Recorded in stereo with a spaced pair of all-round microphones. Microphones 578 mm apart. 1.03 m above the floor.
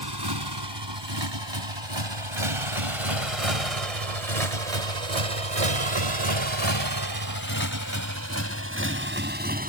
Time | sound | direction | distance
0.0 | a motorcycle | 45° right (ahead or behind) | ?